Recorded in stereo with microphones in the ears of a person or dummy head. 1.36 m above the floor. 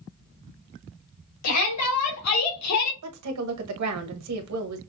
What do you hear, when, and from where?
1.4 s a shout: 80° left, 2.5 m; by 2.9 s 85° left, 1.0 m
3.0 s a woman speaking: 80° right, 1.1 m